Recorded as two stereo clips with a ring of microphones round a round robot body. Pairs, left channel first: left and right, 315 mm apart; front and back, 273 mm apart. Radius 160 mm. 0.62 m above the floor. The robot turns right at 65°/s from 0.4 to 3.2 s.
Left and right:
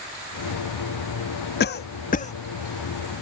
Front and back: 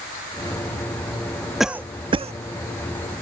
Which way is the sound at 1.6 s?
90° left.